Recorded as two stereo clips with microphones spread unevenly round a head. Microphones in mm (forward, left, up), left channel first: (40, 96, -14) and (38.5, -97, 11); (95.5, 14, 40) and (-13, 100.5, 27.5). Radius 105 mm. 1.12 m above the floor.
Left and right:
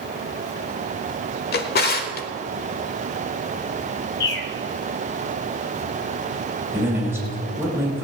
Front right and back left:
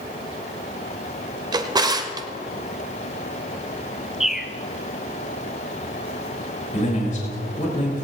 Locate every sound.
1.5 s a drawer: 90° left, 1.0 m
4.2 s a bird: 55° left, 1.1 m
6.7 s a man speaking: 10° right, 4.5 m